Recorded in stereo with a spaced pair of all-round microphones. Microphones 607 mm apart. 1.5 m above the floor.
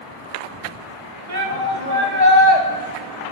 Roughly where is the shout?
Right.